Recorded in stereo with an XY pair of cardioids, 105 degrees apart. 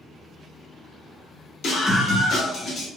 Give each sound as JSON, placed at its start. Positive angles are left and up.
{"t": 1.6, "sound": "a scream", "azimuth_deg": 70, "distance_m": 1.5}